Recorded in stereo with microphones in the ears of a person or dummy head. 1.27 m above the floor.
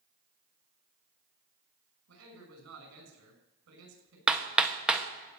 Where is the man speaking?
80° right, 6 m.